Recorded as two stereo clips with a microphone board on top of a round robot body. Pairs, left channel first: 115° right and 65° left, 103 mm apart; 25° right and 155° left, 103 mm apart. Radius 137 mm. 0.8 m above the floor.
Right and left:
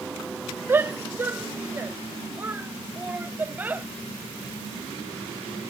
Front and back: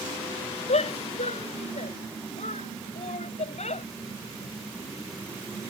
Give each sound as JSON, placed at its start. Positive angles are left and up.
{"t": 0.7, "sound": "a shout", "azimuth_deg": -5}